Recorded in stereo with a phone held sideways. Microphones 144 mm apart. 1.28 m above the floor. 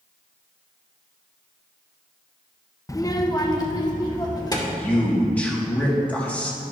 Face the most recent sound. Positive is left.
turn(degrees=10)  # may be behind; listen again after turning